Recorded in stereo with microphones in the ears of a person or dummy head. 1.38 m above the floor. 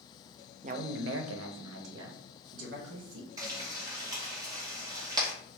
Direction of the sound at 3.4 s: 20° right (ahead or behind).